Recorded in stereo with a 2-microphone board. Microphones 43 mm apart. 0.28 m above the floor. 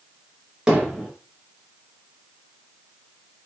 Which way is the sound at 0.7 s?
15° right (ahead or behind).